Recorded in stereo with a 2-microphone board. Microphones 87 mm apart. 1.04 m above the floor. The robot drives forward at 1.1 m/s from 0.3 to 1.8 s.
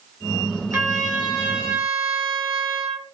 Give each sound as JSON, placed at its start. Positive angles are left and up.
{"t": 0.7, "sound": "a trumpet", "side_deg": -30, "distance_m": 1.1}